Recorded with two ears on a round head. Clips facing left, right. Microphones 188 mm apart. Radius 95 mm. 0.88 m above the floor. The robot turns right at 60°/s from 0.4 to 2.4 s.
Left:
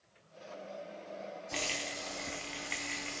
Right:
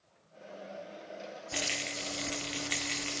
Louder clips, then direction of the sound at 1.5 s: Right 2 dB; 165° right.